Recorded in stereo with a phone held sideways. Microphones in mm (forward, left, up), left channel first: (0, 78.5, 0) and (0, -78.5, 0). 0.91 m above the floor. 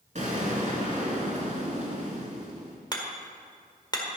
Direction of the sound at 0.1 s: 50° right (ahead or behind).